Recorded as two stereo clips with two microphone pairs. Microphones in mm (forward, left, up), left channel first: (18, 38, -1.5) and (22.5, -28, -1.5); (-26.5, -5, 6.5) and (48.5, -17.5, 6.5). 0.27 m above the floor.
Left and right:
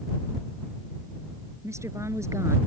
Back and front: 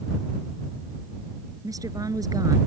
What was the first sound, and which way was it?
A woman speaking, 45° right.